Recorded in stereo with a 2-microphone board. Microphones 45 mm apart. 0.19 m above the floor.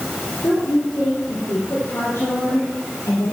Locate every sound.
0.4 s a woman speaking: 65° left (ahead or behind), 4.5 m; by 3.3 s 75° left (ahead or behind), 4.5 m